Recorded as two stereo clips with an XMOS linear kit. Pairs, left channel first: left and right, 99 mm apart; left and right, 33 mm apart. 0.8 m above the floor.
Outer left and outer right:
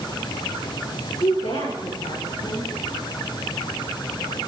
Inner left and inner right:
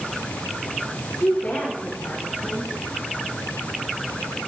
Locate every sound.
1.2 s a woman speaking: 80° left, 7 m